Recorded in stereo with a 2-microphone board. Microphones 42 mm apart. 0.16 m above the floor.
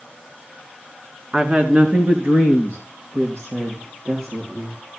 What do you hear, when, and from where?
1.3 s a woman speaking: 30° right (ahead or behind), 2.5 m; by 4.8 s 70° right (ahead or behind), 5.5 m